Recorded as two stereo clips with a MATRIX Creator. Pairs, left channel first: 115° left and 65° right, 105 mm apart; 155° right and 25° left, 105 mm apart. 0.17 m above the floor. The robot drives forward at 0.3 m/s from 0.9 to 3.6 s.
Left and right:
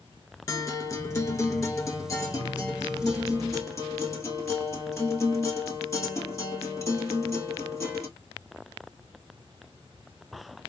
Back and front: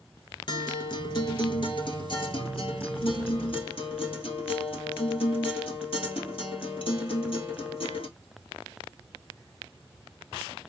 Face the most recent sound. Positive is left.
turn(degrees=175)